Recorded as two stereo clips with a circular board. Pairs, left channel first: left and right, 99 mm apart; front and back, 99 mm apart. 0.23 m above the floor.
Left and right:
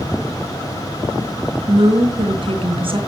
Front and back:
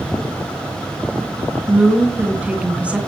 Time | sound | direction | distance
1.7 | a woman speaking | 105° right | 3 m